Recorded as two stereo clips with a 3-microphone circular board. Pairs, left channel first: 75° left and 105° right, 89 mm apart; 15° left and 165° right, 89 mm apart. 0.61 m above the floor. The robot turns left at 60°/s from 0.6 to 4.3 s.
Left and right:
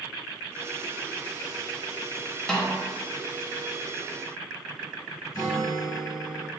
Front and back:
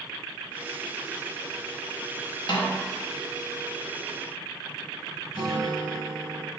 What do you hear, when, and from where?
2.5 s a snare drum: 5° right, 0.7 m; by 2.8 s 20° right, 0.7 m
5.3 s a guitar: 130° left, 1.6 m